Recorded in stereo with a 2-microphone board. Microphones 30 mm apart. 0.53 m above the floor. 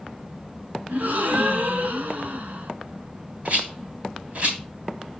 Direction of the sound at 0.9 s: 65° right (ahead or behind).